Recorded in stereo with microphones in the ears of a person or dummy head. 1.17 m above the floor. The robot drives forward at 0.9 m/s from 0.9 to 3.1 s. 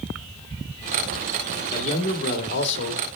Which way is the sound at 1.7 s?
40° left (ahead or behind).